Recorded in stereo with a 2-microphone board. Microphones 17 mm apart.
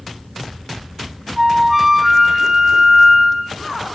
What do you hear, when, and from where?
1.4 s a flute: 10° right (ahead or behind), 1.5 m